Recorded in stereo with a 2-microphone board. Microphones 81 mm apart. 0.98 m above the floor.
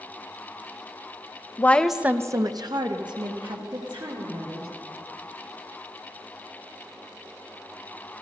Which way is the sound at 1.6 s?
25° left (ahead or behind).